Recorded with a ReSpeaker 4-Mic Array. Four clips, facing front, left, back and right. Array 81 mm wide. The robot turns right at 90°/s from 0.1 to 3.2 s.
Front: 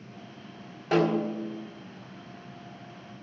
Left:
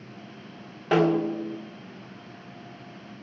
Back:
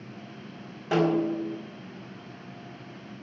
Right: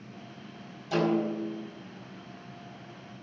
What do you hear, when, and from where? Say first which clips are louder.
0.9 s a snare drum: left 5 dB, back 1 dB; 90° left, 3 m; by 1.6 s 150° left, 3 m